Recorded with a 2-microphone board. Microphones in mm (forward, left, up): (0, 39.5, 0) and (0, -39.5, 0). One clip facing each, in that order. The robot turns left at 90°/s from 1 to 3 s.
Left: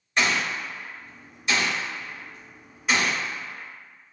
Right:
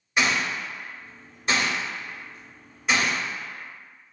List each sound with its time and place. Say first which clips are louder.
0.2 s a gunshot: even; 10° right (ahead or behind), 1.1 m; by 3.2 s 10° left (ahead or behind), 1.1 m